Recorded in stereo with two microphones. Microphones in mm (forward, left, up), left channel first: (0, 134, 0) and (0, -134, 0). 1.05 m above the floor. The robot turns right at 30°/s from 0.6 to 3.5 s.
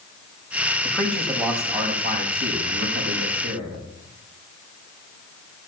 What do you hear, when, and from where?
0.8 s a man speaking: 170° left, 6.5 m; by 3.8 s 110° right, 6.5 m